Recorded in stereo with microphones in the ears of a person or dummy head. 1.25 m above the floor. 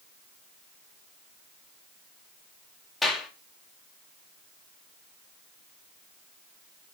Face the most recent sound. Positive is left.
turn(degrees=0)  # may be behind; listen again after turning